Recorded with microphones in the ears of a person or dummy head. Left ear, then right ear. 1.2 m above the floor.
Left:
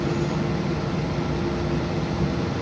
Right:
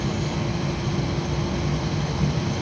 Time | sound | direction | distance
0.0 | an insect | 70° right (ahead or behind) | 0.7 m